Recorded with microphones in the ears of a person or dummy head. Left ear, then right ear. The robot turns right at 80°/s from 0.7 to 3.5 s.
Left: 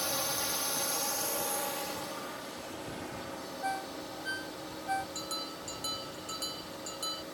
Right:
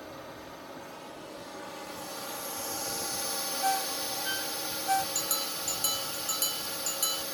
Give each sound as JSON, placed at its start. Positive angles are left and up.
{"t": 0.0, "sound": "a drone", "azimuth_deg": 75}
{"t": 3.6, "sound": "a ringtone", "side_deg": -40}
{"t": 5.2, "sound": "a bell", "side_deg": -25}